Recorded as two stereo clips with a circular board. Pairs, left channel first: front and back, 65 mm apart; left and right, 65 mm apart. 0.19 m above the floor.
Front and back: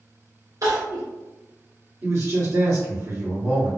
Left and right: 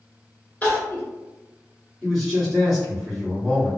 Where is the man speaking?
Straight behind, 2.0 m.